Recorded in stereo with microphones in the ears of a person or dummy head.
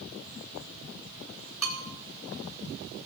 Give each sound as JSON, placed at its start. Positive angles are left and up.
{"t": 1.6, "sound": "a bell", "side_deg": 0, "distance_m": 2.5}